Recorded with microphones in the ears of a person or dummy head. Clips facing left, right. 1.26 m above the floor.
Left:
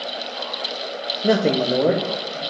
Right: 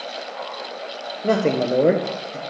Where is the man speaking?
20° left (ahead or behind), 0.6 m; by 2.4 s 30° right (ahead or behind), 1.1 m.